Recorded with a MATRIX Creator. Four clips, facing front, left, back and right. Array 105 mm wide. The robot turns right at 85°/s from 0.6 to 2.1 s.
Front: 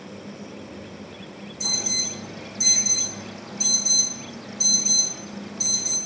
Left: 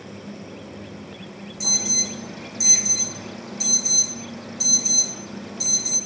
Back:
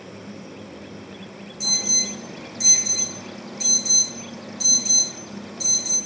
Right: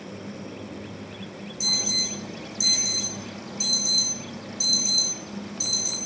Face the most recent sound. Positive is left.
turn(degrees=110)